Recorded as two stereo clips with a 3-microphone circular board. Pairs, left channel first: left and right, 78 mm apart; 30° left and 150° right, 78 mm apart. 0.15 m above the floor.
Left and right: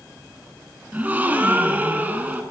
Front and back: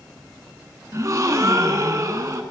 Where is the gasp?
150° right, 0.6 m.